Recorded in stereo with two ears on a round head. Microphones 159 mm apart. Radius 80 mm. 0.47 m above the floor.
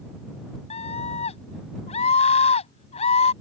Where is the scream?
40° left (ahead or behind).